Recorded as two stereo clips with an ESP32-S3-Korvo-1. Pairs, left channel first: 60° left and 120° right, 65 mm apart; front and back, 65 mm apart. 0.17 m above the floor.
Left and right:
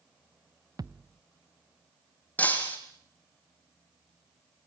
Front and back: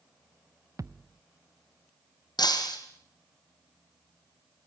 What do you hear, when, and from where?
0.8 s a thud: 140° right, 0.9 m
2.4 s breaking glass: 5° right, 4 m